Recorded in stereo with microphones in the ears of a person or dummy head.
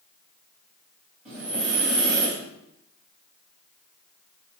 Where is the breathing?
Centre (ahead or behind), 2 m.